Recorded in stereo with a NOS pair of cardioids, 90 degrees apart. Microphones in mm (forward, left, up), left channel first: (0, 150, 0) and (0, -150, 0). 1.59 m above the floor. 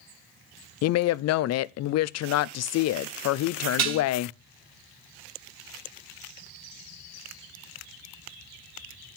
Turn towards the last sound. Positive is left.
turn(degrees=-65)